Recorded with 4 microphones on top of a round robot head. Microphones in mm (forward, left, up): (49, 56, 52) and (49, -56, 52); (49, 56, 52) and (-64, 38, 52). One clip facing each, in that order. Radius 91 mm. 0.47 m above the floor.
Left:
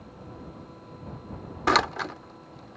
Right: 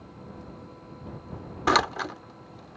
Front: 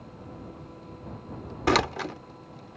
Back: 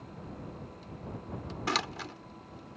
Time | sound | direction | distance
1.7 | a door slam | 5° right | ?